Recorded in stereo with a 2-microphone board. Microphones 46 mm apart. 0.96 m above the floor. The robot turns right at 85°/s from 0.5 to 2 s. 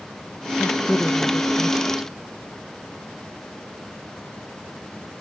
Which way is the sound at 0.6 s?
25° left (ahead or behind).